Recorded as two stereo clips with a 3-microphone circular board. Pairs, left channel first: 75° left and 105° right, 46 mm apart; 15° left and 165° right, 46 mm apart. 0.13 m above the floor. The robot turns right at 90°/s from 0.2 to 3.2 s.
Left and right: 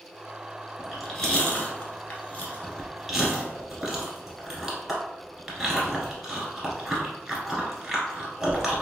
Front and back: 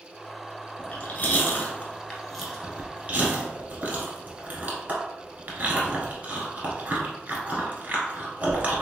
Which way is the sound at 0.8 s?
40° right.